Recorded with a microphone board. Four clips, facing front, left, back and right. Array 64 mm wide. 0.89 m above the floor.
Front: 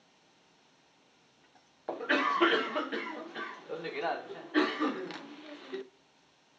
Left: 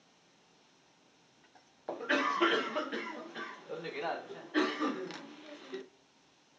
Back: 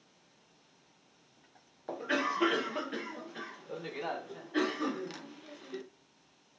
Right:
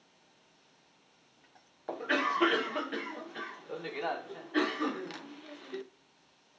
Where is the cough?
15° right, 0.5 m.